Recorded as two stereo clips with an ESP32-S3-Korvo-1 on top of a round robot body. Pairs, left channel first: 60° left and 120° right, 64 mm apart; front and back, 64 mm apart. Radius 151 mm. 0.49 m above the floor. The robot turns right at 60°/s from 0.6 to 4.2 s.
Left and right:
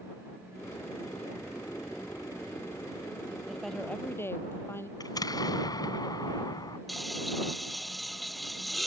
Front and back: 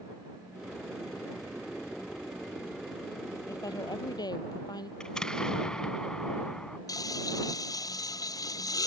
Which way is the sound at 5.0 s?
80° left.